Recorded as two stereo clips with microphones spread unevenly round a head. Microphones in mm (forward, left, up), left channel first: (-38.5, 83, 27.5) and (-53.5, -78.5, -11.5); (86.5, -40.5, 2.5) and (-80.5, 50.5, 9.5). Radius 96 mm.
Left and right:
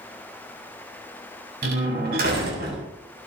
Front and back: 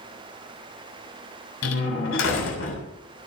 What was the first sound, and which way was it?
A door slam, 50° right.